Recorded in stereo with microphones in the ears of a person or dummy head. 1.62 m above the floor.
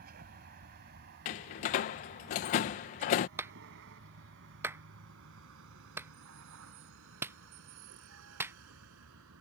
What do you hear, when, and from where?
0.0 s a vehicle: 50° right (ahead or behind); by 9.4 s 75° right (ahead or behind)
1.2 s a door slam: 40° left (ahead or behind)
3.4 s a clap: 10° right (ahead or behind)